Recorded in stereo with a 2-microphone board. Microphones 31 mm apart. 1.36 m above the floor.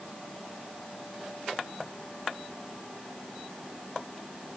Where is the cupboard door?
No cupboard door in this recording.